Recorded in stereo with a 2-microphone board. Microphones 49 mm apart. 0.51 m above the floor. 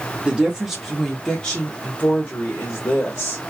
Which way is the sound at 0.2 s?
20° right (ahead or behind).